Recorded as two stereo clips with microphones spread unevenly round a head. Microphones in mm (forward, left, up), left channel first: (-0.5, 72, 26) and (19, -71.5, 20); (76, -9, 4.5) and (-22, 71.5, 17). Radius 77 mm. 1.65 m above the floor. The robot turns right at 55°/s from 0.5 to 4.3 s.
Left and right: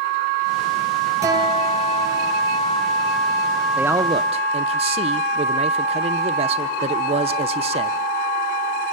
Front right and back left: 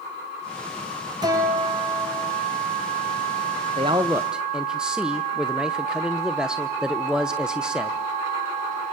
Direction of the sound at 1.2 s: 155° right.